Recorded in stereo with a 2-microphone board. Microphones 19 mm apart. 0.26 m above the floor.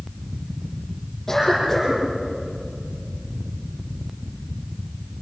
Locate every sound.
1.3 s a cough: 20° left (ahead or behind), 8.5 m